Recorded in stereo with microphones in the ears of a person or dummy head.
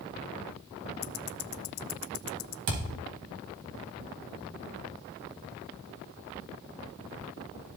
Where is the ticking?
75° left (ahead or behind), 0.5 m.